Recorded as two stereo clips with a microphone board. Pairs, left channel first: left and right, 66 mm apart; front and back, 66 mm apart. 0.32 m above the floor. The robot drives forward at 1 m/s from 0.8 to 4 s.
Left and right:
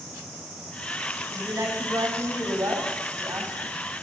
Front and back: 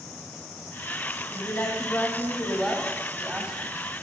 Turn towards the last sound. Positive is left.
turn(degrees=-125)